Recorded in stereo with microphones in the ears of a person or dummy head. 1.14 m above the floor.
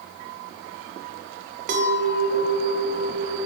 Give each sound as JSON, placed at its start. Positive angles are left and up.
{"t": 1.7, "sound": "a clink", "side_deg": -45, "distance_m": 0.5}